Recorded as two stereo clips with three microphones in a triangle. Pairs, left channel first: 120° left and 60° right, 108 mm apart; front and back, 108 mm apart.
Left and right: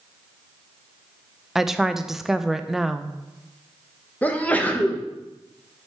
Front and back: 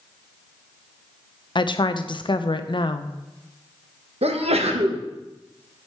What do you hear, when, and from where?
1.6 s a woman speaking: 25° left, 0.5 m
4.2 s a sneeze: 165° right, 1.1 m